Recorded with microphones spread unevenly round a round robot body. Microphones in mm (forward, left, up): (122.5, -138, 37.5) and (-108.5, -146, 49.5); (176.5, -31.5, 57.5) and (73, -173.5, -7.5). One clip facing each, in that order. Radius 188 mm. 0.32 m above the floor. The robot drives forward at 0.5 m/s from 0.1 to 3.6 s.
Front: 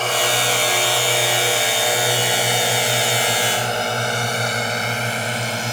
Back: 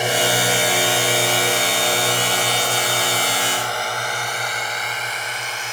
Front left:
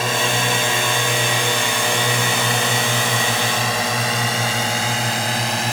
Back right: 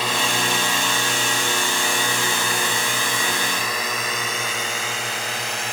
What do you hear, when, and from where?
0.0 s a drone: 105° left; by 5.7 s 50° left